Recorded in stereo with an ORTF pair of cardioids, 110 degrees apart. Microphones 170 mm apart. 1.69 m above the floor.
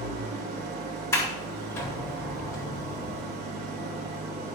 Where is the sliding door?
15° left, 6.5 m.